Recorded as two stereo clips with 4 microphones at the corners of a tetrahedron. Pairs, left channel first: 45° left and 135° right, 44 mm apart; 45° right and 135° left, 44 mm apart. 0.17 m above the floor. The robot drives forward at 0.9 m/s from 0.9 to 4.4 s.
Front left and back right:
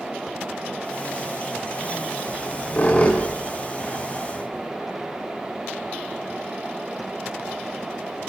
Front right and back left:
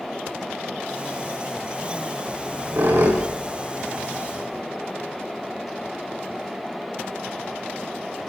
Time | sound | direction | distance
2.3 | a squeak | 105° left | 7.5 m